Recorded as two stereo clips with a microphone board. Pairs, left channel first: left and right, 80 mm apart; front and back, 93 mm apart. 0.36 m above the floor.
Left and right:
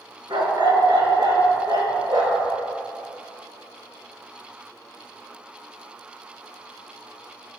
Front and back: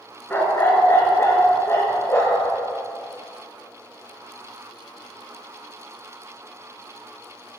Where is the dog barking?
70° right, 1.8 m; by 2.5 s 65° right, 3.5 m.